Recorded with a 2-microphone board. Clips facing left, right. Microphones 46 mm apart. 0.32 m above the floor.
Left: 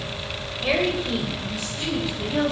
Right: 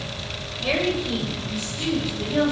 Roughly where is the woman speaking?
Centre.